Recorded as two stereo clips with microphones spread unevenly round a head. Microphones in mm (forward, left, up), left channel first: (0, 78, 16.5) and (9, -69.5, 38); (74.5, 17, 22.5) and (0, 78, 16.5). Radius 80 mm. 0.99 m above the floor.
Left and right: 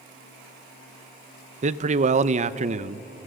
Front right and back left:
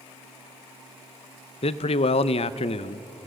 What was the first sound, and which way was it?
A man speaking, 45° right.